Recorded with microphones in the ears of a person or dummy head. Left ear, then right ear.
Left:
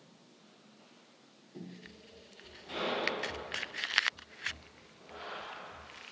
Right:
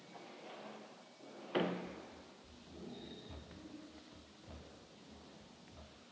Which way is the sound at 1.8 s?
Centre (ahead or behind).